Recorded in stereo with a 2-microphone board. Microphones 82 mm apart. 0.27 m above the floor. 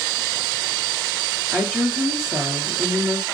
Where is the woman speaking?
5° right (ahead or behind), 5.5 m.